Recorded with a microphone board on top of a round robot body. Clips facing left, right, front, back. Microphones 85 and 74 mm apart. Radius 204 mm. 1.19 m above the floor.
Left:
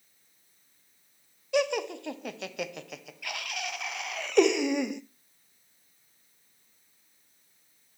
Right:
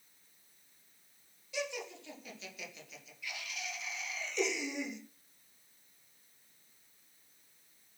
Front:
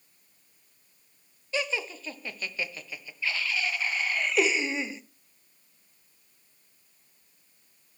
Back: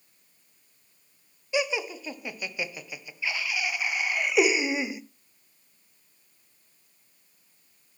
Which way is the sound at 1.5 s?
105° left.